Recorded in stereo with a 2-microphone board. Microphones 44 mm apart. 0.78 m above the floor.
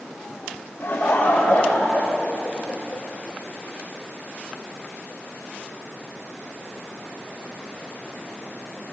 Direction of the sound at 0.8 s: 65° left (ahead or behind).